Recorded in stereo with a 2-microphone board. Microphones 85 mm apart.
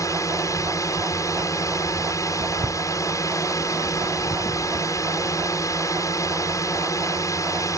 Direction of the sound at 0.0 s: 40° left (ahead or behind).